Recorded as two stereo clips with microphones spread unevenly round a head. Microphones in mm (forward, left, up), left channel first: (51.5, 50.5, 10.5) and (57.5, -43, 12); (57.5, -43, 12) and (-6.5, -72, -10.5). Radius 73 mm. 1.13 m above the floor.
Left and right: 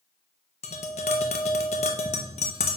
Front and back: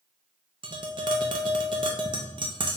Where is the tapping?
145° left, 0.6 m.